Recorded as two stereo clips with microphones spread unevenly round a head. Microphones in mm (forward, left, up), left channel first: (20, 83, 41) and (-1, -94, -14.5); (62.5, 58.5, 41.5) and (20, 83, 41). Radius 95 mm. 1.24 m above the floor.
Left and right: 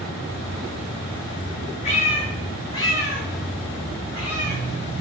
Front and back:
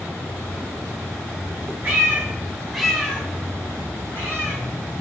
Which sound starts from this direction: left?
A cat meowing, at 1.8 s.